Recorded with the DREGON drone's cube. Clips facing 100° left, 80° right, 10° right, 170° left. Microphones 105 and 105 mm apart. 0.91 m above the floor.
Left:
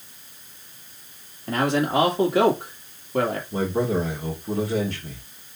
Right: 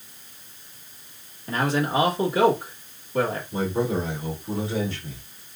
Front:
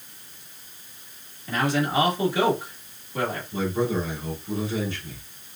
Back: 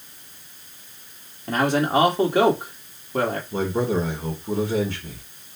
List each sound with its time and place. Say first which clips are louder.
1.5 s a man speaking: left 2 dB, back 4 dB; 130° left, 1.7 m
3.5 s a man speaking: left 1 dB, back 1 dB; 145° left, 1.7 m